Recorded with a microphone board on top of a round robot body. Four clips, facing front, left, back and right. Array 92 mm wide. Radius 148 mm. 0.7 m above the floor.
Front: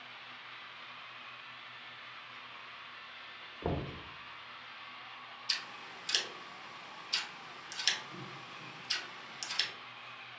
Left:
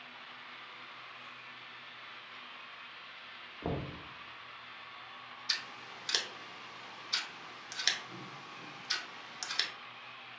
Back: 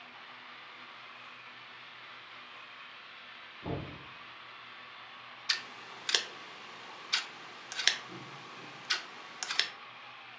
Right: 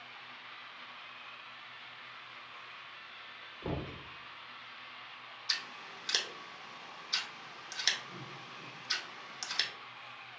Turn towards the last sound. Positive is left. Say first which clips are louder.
# right 1 dB, back 5 dB
turn(degrees=180)